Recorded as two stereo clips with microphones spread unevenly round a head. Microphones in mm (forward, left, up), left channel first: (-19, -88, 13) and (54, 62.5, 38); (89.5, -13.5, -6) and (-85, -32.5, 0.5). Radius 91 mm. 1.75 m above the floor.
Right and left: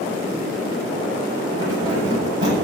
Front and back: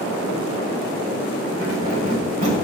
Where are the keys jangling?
135° left, 8 m.